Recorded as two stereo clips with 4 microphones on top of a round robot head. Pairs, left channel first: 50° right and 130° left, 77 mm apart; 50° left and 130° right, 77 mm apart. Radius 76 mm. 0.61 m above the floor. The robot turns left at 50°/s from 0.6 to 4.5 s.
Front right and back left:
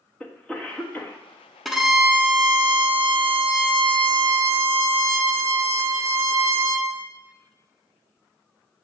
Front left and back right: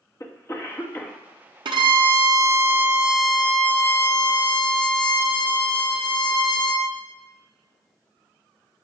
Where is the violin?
140° right, 1.0 m; by 6.9 s 75° left, 1.0 m.